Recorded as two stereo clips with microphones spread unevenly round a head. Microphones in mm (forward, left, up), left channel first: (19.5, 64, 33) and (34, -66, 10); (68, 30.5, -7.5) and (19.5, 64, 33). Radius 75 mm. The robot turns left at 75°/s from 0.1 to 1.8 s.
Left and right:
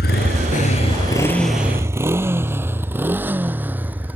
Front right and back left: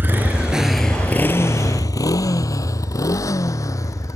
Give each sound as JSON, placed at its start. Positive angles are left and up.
{"t": 0.0, "sound": "a motorcycle", "azimuth_deg": 95}